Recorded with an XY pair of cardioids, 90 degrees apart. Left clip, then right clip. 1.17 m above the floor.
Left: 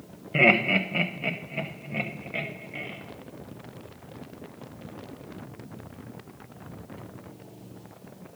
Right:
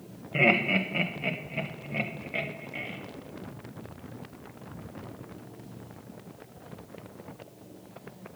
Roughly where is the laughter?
Ahead left.